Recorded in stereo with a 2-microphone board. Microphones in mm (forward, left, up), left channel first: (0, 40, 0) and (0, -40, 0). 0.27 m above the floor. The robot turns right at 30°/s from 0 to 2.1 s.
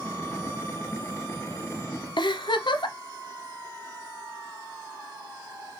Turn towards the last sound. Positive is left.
turn(degrees=75)  # may be behind; listen again after turning